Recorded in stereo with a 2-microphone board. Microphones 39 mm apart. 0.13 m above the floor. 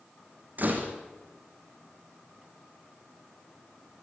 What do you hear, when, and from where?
0.6 s a door slam: 50° right (ahead or behind), 5 m